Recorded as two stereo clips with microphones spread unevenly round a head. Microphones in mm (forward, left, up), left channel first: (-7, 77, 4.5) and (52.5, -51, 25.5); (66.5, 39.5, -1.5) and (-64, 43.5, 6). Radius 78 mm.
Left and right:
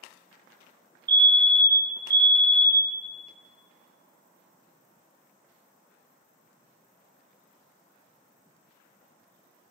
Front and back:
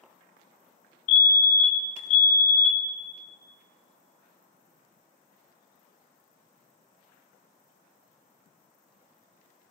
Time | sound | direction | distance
1.1 | a fire alarm | 5° right | 1.6 m